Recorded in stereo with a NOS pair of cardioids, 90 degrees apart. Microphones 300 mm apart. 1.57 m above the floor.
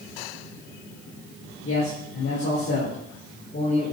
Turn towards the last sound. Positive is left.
turn(degrees=35)